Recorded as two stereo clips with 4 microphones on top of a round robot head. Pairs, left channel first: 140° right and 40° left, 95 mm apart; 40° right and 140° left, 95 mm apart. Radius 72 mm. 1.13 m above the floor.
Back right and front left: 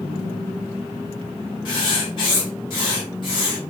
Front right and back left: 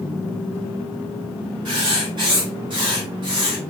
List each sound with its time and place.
1.6 s writing: straight behind, 1.0 m